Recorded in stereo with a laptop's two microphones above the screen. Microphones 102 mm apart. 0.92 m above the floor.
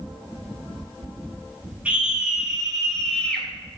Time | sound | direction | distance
1.9 | a scream | 15° right (ahead or behind) | 3.5 m